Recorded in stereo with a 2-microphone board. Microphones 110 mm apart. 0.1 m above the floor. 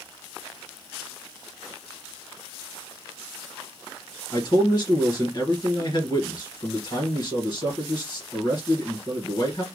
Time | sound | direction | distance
4.3 | a man speaking | 40° left (ahead or behind) | 1.7 m